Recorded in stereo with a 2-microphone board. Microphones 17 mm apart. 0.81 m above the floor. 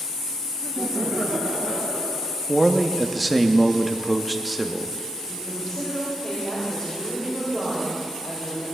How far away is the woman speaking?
About 3 m.